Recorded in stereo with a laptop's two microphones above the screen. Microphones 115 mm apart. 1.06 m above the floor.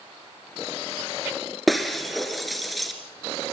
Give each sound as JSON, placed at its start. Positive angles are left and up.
{"t": 1.7, "sound": "breaking glass", "side_deg": 0, "distance_m": 1.6}